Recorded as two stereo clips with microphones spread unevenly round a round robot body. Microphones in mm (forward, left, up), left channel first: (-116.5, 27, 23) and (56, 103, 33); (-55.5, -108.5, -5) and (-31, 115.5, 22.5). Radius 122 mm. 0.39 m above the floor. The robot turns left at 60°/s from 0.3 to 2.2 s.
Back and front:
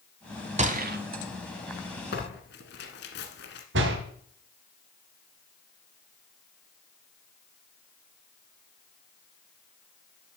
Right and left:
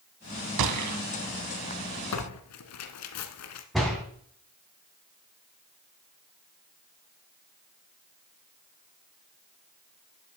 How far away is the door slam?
About 2.5 m.